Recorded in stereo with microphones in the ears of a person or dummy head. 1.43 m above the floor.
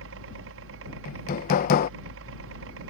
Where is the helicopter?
65° right (ahead or behind).